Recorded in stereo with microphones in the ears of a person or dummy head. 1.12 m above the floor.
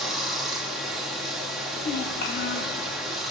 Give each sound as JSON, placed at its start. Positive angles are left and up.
{"t": 0.0, "sound": "running water", "side_deg": -5, "distance_m": 1.5}
{"t": 1.8, "sound": "a child speaking", "side_deg": 55, "distance_m": 1.1}